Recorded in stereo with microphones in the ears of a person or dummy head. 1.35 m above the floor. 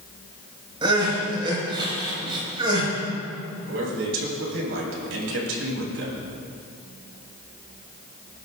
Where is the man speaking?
80° right, 4 m.